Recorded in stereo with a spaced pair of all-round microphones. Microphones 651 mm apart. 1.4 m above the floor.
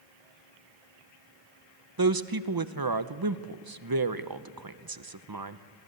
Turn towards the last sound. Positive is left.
turn(degrees=-35)  # may be behind; listen again after turning